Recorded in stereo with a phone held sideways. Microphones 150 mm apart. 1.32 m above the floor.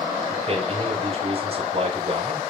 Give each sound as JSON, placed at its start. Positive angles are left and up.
{"t": 0.3, "sound": "a man speaking", "side_deg": -40, "distance_m": 5.5}